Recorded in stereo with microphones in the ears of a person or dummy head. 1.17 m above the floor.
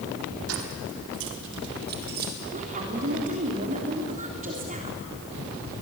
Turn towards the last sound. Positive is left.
turn(degrees=-40)  # may be behind; listen again after turning